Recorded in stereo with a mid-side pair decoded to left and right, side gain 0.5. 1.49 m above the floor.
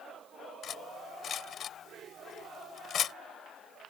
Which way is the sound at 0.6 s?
55° left.